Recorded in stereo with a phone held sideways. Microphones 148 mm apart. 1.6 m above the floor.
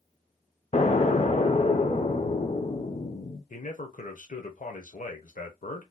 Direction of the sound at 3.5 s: 60° left (ahead or behind).